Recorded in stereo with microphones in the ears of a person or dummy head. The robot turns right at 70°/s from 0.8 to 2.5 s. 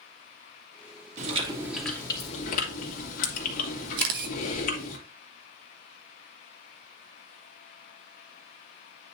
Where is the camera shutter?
60° right (ahead or behind), 1.1 m.